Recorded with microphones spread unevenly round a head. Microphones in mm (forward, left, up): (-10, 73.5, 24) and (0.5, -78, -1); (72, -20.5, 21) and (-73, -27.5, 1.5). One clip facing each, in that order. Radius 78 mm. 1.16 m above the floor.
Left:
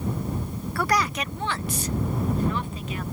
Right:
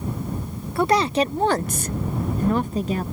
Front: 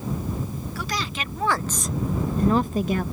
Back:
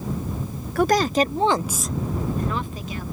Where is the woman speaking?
150° right; by 3.0 s 35° right.